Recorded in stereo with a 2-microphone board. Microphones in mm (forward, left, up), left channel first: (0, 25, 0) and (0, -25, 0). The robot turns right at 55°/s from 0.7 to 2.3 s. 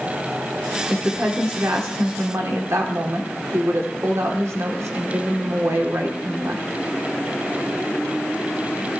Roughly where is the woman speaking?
Behind.